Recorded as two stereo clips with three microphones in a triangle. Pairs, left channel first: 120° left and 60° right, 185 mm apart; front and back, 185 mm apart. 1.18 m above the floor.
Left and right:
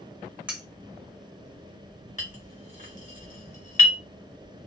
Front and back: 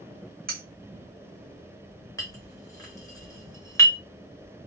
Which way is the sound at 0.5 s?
145° right.